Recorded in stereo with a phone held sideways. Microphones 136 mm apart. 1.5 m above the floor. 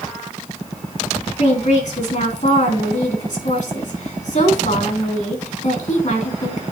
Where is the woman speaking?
70° left (ahead or behind), 3 m.